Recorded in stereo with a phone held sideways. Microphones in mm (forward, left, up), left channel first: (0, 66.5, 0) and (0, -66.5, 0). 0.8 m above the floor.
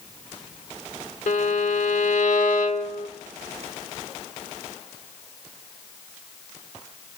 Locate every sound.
1.3 s a violin: 70° left (ahead or behind), 1.0 m